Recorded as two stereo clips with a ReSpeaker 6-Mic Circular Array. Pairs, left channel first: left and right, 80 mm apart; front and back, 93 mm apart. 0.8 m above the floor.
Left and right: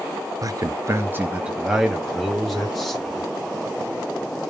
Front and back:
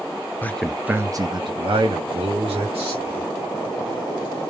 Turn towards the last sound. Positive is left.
turn(degrees=175)